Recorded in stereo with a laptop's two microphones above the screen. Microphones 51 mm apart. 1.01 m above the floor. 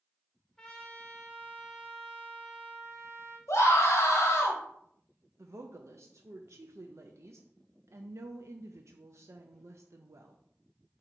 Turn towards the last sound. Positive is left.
turn(degrees=-65)  # may be behind; listen again after turning